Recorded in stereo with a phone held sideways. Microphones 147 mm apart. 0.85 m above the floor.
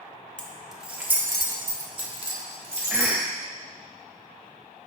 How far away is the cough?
About 0.6 m.